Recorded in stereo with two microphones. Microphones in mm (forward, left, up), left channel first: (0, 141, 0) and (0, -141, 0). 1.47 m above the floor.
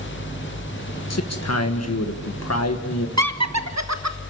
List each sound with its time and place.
1.1 s a man speaking: 65° left (ahead or behind), 1.6 m
3.2 s laughter: 70° right (ahead or behind), 1.4 m